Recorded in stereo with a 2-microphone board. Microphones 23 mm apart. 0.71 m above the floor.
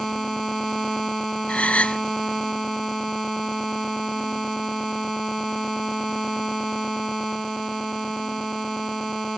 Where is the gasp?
85° left.